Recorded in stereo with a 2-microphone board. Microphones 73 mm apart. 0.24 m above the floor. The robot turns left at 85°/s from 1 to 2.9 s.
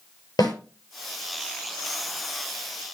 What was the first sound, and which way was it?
A snare drum, 65° left (ahead or behind).